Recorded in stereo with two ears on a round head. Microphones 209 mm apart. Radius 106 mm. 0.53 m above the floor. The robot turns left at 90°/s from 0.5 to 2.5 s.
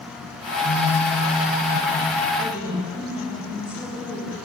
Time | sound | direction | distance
0.6 | a phone buzzing | 40° left | 3.5 m
2.4 | a woman speaking | 40° left (ahead or behind) | 5.5 m